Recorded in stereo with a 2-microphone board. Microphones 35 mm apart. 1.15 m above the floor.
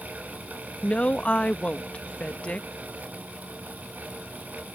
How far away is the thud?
I don't hear a thud.